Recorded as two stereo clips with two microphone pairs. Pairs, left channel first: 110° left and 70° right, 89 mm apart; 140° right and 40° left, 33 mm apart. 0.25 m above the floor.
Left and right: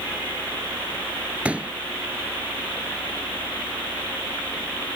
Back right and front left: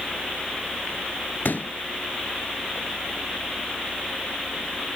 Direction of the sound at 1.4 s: 145° right.